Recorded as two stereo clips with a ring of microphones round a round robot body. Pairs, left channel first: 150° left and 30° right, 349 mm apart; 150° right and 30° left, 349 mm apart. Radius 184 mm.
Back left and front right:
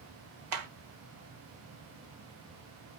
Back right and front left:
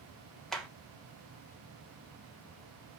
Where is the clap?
60° right, 3 m.